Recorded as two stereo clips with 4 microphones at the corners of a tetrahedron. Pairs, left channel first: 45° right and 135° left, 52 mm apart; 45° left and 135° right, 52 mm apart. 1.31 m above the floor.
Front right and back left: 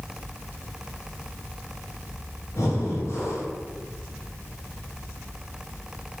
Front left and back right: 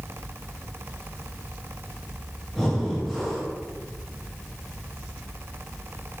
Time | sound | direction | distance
2.5 | breathing | 35° right | 0.8 m